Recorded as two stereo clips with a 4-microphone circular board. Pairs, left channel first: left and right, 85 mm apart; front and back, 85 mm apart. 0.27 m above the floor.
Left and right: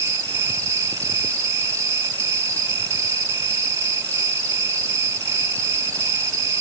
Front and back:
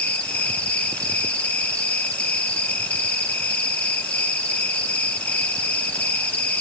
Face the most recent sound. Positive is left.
turn(degrees=-65)